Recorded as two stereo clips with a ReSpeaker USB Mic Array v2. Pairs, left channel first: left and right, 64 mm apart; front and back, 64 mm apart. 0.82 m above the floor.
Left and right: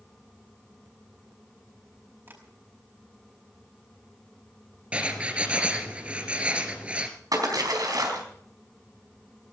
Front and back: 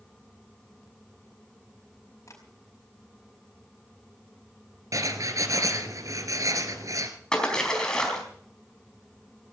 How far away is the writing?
About 2 m.